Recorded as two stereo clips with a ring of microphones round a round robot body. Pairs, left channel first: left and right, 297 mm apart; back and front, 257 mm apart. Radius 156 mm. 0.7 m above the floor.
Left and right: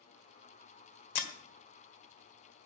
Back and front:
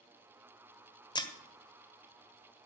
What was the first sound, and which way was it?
Breaking glass, 105° left.